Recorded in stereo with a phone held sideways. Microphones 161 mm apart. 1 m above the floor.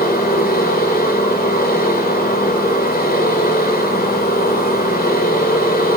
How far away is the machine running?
About 3.5 m.